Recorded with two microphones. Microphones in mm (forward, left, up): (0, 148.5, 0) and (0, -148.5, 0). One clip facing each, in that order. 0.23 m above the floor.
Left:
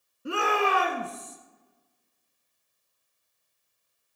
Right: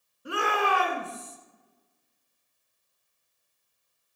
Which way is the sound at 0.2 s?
30° left (ahead or behind).